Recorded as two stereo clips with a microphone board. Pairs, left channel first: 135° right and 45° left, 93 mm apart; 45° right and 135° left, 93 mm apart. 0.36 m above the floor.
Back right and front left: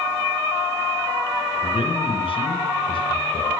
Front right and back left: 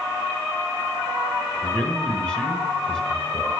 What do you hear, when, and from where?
1.6 s a man speaking: 125° right, 4 m